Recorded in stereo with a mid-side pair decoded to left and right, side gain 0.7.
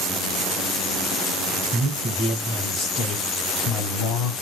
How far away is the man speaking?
About 1.8 m.